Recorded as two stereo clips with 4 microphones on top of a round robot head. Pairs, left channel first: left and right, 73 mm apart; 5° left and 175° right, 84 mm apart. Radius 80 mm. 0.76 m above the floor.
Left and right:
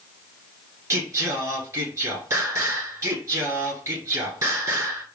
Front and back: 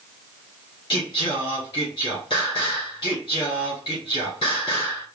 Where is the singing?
45° right, 2 m.